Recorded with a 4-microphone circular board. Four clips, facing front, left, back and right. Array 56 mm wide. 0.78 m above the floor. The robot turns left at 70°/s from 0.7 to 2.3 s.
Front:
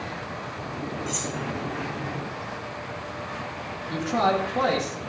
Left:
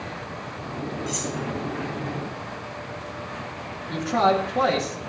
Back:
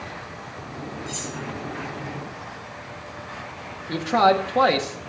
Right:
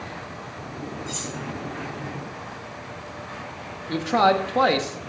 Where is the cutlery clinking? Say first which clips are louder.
Left 3 dB, front 2 dB; 50° left, 6 m; by 1.4 s 25° left, 6 m.